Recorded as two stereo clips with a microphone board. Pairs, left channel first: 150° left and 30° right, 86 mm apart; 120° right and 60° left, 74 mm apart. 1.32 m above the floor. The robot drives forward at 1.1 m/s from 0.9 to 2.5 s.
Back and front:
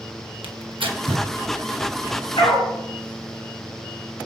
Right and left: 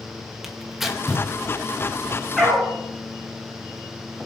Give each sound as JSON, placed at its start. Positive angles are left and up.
{"t": 0.4, "sound": "tearing paper", "azimuth_deg": -25, "distance_m": 1.2}
{"t": 2.4, "sound": "a dog barking", "azimuth_deg": 145, "distance_m": 6.0}